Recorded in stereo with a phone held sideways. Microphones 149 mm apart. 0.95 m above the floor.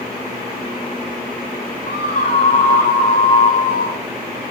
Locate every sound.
1.9 s a scream: 65° left (ahead or behind), 2 m; by 4.0 s 75° left (ahead or behind), 3.5 m